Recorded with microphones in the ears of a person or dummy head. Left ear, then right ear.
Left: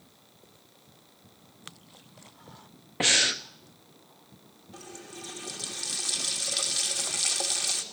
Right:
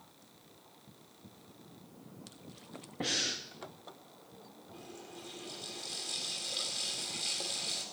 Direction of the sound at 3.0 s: 35° left (ahead or behind).